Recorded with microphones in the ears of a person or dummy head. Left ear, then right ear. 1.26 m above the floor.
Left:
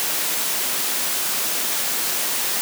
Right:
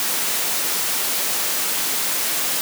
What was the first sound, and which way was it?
Only background noise.